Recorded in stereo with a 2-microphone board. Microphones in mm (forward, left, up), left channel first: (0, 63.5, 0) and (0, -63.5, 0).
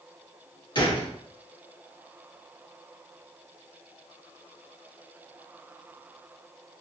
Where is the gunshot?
40° left (ahead or behind), 1.2 m.